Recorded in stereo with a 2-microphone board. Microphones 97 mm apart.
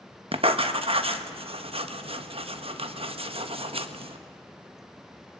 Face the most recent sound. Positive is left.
turn(degrees=-70)  # may be behind; listen again after turning